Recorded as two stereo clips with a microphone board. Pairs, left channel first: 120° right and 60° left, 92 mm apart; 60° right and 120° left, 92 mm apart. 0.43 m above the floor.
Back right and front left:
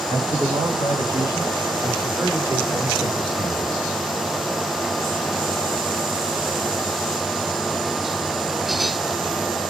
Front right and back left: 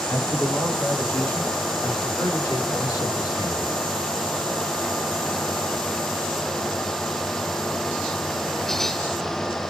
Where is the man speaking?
25° left, 4 m; by 3.8 s 60° right, 1.8 m.